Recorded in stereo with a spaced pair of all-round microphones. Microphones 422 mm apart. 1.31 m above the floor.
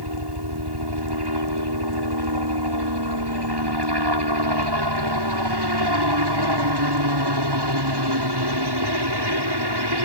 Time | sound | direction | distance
0.0 | a helicopter | 70° right (ahead or behind) | ?